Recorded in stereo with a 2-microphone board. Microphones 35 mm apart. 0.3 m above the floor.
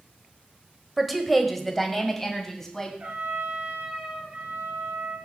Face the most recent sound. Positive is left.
turn(degrees=-45)  # may be behind; listen again after turning